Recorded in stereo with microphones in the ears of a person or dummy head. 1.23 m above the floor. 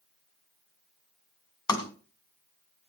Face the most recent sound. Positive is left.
turn(degrees=20)  # may be behind; listen again after turning